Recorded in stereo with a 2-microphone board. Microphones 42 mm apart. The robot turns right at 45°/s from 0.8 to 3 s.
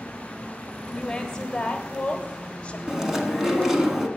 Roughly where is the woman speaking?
Centre.